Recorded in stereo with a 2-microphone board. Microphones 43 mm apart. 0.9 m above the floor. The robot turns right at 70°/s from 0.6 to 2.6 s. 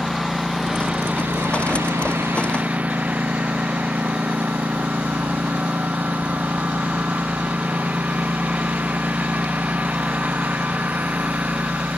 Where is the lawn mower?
Straight behind; by 12.0 s 40° right.